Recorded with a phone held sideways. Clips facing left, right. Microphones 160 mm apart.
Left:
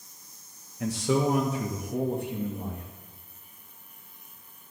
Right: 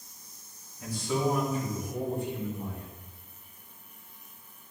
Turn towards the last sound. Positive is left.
turn(degrees=55)  # may be behind; listen again after turning